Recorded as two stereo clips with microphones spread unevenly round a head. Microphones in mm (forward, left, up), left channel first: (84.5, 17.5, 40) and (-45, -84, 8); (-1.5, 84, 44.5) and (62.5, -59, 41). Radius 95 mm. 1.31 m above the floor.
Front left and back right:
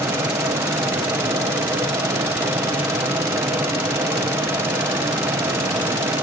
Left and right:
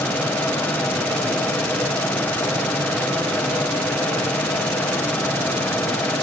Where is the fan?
175° right, 1.2 m.